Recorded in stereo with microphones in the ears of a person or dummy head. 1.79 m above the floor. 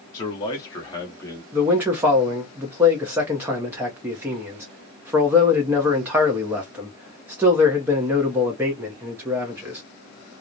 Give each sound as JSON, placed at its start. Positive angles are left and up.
{"t": 0.1, "sound": "a man speaking", "side_deg": 20, "distance_m": 0.7}
{"t": 1.5, "sound": "a man speaking", "side_deg": -10, "distance_m": 0.7}